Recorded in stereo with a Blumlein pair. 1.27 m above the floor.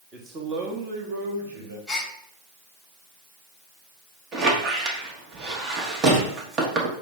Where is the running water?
I don't hear running water.